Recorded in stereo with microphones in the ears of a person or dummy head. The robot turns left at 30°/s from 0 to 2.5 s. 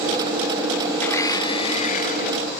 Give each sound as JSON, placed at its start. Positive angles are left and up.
{"t": 1.0, "sound": "a blender", "azimuth_deg": 170, "distance_m": 0.6}